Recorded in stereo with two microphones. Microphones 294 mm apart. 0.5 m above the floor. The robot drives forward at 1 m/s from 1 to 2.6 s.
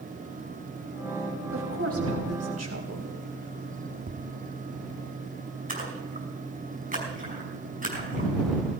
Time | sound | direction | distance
1.5 | a woman speaking | 45° right (ahead or behind) | 4 m
4.1 | tapping | 35° right (ahead or behind) | 1.0 m
5.7 | a splash | 25° right (ahead or behind) | 5 m